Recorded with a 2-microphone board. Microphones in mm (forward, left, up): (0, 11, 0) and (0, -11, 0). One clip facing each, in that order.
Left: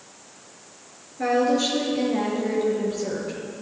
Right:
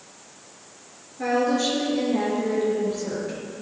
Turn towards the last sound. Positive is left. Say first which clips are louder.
# left 1 dB
turn(degrees=10)  # may be behind; listen again after turning